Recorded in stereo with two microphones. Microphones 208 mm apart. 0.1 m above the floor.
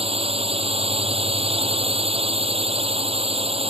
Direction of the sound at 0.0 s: 30° right (ahead or behind).